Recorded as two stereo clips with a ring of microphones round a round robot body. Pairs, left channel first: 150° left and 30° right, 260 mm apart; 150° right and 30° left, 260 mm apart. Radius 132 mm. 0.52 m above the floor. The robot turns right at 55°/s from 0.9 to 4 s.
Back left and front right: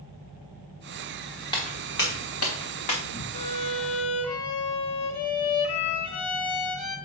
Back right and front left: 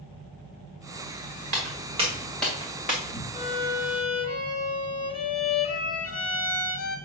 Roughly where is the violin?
Behind left.